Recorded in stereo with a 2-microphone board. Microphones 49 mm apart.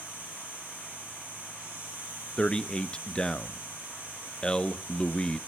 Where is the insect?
35° right (ahead or behind), 6.5 m.